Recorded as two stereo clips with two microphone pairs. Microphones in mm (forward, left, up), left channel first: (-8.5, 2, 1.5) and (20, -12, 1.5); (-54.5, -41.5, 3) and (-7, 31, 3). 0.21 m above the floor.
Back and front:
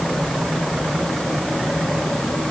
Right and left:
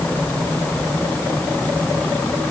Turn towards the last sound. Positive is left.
No sound to turn to.